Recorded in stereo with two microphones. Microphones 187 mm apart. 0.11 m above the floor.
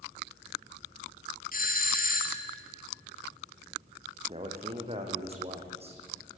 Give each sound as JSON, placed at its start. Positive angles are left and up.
{"t": 1.5, "sound": "a doorbell", "side_deg": 50, "distance_m": 2.5}
{"t": 4.3, "sound": "a man speaking", "side_deg": -35, "distance_m": 5.0}